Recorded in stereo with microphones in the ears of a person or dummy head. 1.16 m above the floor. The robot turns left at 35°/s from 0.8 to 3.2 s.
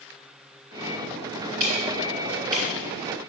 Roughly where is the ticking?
Right.